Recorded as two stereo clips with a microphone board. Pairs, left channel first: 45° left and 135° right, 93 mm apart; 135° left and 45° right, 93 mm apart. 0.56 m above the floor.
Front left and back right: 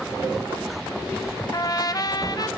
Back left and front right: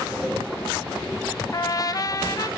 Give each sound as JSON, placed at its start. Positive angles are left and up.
{"t": 1.5, "sound": "a trumpet", "azimuth_deg": 90, "distance_m": 0.8}